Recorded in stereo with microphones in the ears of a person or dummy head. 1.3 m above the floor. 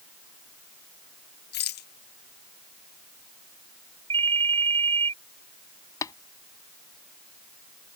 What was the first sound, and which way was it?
A rattle, 55° left (ahead or behind).